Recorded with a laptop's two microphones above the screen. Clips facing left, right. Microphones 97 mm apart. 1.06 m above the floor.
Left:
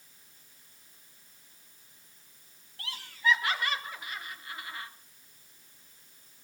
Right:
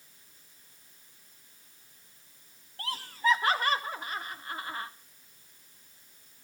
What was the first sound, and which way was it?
Laughter, 40° right (ahead or behind).